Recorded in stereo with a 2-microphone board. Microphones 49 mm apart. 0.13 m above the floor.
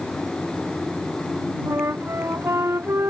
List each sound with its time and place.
1.7 s a flute: 65° right (ahead or behind)